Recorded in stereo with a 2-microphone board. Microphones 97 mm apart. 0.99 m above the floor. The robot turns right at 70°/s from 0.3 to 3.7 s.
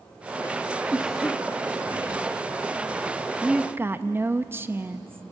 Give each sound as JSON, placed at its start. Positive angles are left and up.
{"t": 0.9, "sound": "a cough", "azimuth_deg": -15, "distance_m": 1.2}
{"t": 3.4, "sound": "a woman speaking", "side_deg": -5, "distance_m": 0.8}